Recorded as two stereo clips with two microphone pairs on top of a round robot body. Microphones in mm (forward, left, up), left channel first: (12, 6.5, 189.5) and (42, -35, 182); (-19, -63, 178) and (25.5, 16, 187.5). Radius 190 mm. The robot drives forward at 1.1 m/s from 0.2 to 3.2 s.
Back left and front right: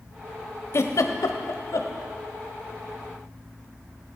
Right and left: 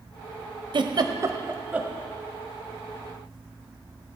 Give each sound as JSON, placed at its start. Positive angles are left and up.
{"t": 0.7, "sound": "a giggle", "azimuth_deg": 85, "distance_m": 1.1}